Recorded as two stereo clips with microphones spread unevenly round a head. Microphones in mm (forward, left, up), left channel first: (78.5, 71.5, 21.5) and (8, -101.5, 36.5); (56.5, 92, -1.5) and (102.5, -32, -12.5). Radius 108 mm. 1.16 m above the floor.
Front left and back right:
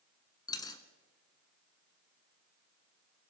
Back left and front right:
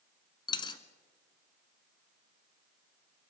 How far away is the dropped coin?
About 1.3 m.